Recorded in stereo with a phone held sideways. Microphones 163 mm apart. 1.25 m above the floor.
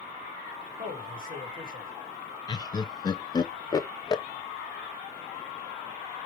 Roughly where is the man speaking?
Right.